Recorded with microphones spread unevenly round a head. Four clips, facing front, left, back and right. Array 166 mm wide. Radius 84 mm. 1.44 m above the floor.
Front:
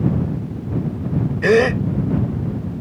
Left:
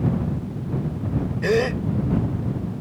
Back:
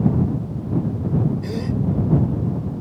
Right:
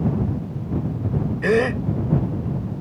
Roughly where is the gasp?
Ahead.